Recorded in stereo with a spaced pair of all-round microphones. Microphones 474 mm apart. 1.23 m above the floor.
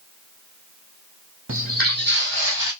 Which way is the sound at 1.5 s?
25° right (ahead or behind).